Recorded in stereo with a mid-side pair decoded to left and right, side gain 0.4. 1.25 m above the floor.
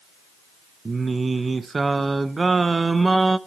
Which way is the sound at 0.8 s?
35° right.